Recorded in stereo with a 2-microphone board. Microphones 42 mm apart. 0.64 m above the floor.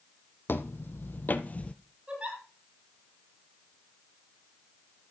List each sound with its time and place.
0.5 s footsteps: 65° left (ahead or behind), 1.3 m; by 1.7 s 35° left (ahead or behind), 0.7 m
2.1 s a giggle: 25° right (ahead or behind), 9 m